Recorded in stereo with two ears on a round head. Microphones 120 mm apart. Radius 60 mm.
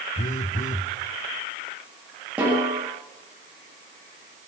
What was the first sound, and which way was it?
A phone buzzing, 60° left (ahead or behind).